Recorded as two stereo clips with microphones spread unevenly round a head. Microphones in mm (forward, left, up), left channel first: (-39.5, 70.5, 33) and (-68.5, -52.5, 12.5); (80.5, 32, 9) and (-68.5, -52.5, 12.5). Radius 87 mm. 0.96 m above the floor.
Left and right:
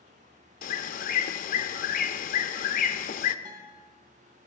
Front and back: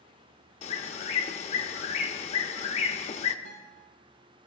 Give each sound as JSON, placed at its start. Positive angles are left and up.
{"t": 0.6, "sound": "a bird", "azimuth_deg": 85, "distance_m": 0.8}
{"t": 3.5, "sound": "a guitar", "azimuth_deg": -150, "distance_m": 4.0}